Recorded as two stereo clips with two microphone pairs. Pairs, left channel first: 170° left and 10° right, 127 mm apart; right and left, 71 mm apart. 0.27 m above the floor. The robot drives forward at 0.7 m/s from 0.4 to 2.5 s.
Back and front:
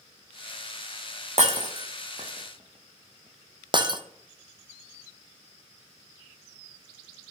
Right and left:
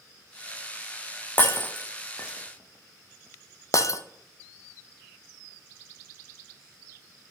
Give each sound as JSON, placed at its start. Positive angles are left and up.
{"t": 1.4, "sound": "breaking glass", "azimuth_deg": -25, "distance_m": 1.3}